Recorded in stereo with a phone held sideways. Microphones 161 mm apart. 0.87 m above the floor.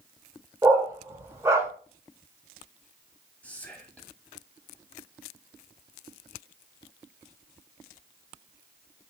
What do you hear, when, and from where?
0.6 s a dog barking: 15° right (ahead or behind), 0.7 m
3.4 s whispering: 10° left (ahead or behind), 1.1 m